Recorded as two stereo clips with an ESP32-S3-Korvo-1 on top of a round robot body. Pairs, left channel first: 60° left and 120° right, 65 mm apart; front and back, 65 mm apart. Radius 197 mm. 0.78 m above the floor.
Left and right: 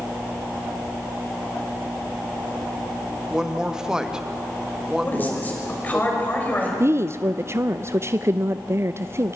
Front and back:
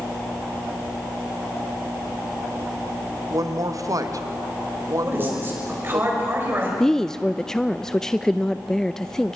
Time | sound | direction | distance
3.3 | a woman speaking | 160° left | 1.9 m
5.0 | a man speaking | 125° left | 6 m
6.8 | a woman speaking | 80° right | 0.6 m